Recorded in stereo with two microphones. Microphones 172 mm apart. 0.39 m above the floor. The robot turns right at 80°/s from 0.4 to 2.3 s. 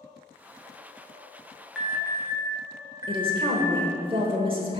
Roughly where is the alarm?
Centre.